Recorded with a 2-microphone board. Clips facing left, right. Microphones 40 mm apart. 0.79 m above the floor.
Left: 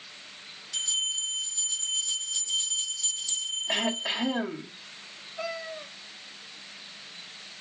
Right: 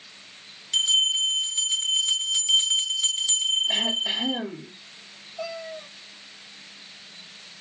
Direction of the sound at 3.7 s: 60° left (ahead or behind).